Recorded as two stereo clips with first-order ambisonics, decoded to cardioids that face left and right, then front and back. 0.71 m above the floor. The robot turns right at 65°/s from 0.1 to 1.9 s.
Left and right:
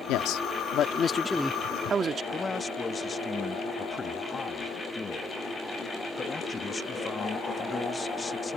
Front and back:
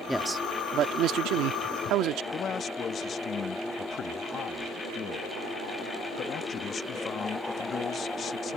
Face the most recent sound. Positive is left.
turn(degrees=30)